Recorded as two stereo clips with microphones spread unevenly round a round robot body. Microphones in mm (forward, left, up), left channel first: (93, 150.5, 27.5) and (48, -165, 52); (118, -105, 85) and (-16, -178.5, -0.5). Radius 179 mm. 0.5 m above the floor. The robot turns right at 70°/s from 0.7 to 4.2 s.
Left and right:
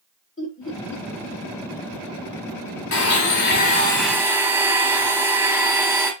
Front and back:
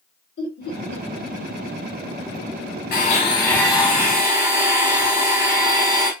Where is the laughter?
25° left, 2.0 m; by 1.0 s 50° left, 2.0 m.